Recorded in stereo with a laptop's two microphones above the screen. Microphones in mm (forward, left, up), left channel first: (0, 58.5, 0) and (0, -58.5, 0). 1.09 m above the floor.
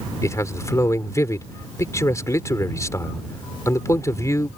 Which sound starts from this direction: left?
A man speaking, at 0.2 s.